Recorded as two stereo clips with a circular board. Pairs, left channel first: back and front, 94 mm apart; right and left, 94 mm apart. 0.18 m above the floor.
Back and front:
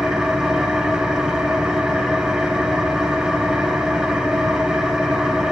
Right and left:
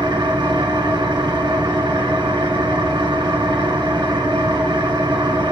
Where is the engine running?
80° left, 1.5 m.